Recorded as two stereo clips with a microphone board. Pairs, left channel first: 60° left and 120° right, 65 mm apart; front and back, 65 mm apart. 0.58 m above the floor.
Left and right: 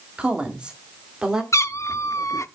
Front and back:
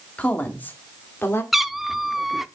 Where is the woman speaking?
55° right, 1.5 m; by 1.4 s 45° right, 2.0 m.